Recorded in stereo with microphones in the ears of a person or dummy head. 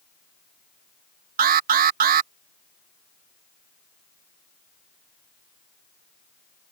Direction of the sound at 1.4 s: 45° right (ahead or behind).